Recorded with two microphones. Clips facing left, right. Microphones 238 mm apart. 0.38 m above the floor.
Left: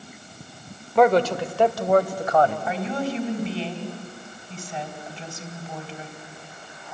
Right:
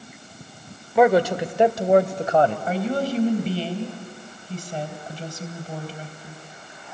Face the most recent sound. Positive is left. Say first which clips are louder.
# right 3 dB
turn(degrees=-45)  # may be behind; listen again after turning